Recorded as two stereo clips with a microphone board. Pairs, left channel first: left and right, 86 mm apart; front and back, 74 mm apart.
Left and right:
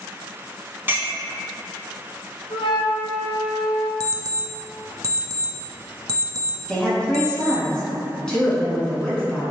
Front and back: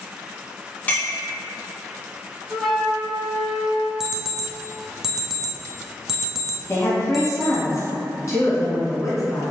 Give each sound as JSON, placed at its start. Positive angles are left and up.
{"t": 0.9, "sound": "a clink", "azimuth_deg": -50, "distance_m": 0.8}
{"t": 2.5, "sound": "a flute", "azimuth_deg": 85, "distance_m": 0.7}
{"t": 4.0, "sound": "an alarm clock", "azimuth_deg": -100, "distance_m": 0.5}
{"t": 6.7, "sound": "a woman speaking", "azimuth_deg": 10, "distance_m": 1.6}